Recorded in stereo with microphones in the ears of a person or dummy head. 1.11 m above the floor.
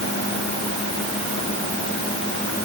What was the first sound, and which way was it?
Only background noise.